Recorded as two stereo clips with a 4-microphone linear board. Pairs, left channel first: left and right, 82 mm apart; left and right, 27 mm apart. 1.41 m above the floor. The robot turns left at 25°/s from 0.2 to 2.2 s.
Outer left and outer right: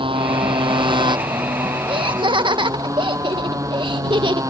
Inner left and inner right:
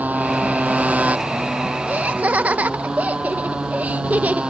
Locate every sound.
0.0 s a motorcycle: 90° right; by 4.5 s 140° right
1.9 s laughter: 80° right; by 4.4 s 70° right (ahead or behind)